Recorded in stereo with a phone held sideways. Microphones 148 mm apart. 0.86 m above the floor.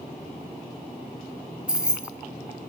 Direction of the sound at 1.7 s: 5° right (ahead or behind).